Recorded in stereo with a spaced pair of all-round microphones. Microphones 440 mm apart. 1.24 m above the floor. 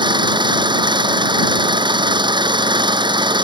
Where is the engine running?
10° right (ahead or behind).